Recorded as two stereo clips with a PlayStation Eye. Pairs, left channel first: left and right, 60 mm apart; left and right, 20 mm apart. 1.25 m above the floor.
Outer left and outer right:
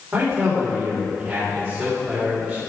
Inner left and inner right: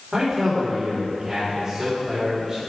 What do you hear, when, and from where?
0.1 s a man speaking: 40° right (ahead or behind), 3.5 m